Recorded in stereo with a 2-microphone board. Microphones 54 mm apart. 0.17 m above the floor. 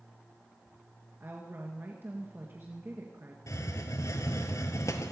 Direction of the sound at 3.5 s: 75° left (ahead or behind).